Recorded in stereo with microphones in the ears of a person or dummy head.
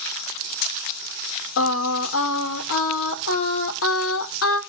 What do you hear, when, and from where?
1.6 s singing: 70° left (ahead or behind), 1.5 m